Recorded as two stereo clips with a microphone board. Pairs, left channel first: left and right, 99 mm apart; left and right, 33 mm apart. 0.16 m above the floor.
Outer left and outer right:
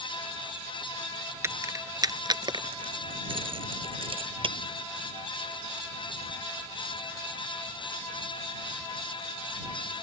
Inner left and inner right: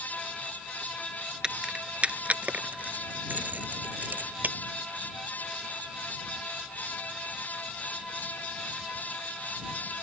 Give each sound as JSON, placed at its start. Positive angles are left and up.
{"t": 1.4, "sound": "keys jangling", "side_deg": -25}